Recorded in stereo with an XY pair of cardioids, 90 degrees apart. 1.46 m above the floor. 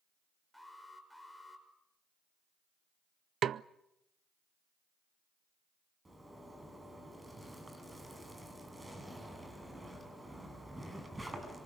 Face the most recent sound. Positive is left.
turn(degrees=-15)